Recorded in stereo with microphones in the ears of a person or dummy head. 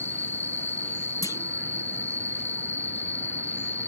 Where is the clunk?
20° left (ahead or behind).